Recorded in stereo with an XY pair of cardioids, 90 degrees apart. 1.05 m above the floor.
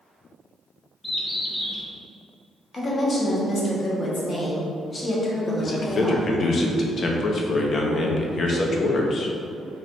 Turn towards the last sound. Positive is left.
turn(degrees=50)